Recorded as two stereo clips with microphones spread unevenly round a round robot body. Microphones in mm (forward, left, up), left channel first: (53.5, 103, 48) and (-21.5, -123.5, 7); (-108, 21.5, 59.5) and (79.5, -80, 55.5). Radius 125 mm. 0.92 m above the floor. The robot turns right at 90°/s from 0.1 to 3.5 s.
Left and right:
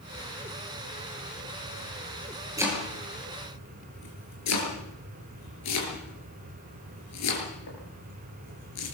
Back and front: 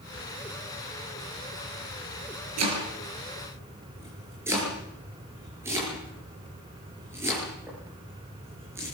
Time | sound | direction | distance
2.6 | chopping | 30° right | 6.5 m